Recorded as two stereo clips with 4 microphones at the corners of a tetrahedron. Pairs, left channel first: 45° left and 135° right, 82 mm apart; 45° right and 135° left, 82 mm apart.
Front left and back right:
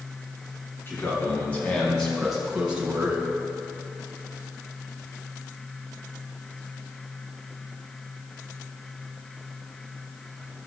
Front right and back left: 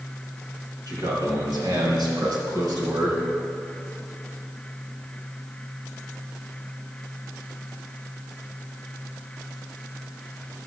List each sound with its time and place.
0.9 s a man speaking: 105° left, 4.5 m; by 3.2 s 165° left, 3 m